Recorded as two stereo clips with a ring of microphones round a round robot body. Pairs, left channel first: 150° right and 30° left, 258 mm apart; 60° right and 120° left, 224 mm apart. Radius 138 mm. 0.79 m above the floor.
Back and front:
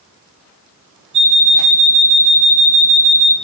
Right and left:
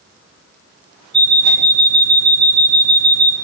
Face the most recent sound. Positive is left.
turn(degrees=80)